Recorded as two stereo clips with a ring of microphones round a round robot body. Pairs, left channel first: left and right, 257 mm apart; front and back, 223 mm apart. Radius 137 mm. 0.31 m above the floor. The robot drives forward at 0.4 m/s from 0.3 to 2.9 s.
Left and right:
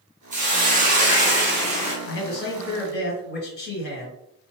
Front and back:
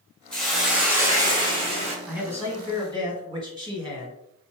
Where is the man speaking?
100° left, 1.6 m; by 4.2 s 115° left, 1.7 m.